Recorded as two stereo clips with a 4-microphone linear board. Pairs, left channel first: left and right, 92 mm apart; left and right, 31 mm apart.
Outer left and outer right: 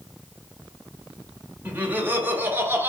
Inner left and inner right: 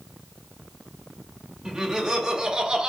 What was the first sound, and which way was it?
Laughter, 20° right (ahead or behind).